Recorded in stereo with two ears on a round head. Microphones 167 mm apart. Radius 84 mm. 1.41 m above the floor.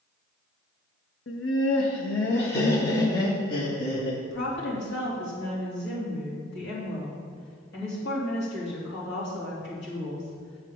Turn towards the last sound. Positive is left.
turn(degrees=65)  # may be behind; listen again after turning